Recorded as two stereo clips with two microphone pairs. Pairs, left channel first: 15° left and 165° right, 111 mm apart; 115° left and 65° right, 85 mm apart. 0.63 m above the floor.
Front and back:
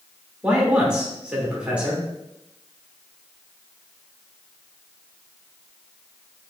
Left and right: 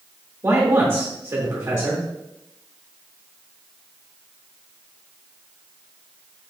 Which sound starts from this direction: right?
A man speaking, at 0.4 s.